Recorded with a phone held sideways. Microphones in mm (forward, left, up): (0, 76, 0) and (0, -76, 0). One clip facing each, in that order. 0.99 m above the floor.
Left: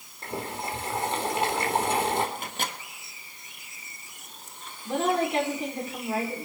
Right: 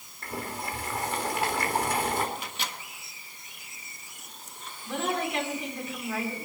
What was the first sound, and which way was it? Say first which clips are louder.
Boiling: left 2 dB; 25° left (ahead or behind).